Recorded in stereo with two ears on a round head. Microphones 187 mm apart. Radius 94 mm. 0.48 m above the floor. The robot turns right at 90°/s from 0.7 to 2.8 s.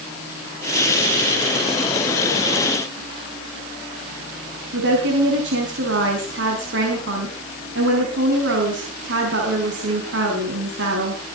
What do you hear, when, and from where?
4.7 s a woman speaking: 55° right (ahead or behind), 5.5 m